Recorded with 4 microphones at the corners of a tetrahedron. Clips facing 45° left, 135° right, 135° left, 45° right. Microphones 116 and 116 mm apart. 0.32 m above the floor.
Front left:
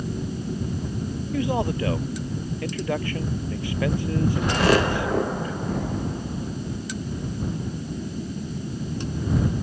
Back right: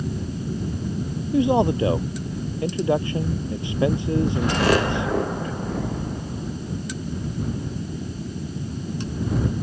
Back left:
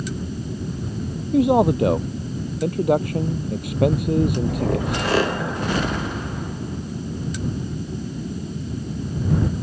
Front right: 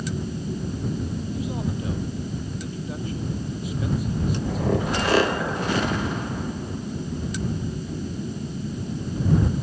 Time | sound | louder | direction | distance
1.3 | a man speaking | back right 7 dB, back left 18 dB | 160° left | ?